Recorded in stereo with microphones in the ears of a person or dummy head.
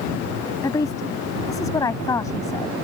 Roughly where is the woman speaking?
Centre.